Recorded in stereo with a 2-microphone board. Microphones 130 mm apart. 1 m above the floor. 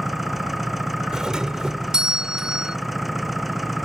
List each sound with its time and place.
0.0 s an engine running: centre (ahead or behind)
1.1 s a doorbell: 5° right (ahead or behind)